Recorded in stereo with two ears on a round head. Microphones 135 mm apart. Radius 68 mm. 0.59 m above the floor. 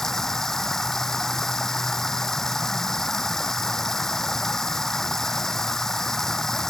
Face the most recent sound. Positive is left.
turn(degrees=5)  # may be behind; listen again after turning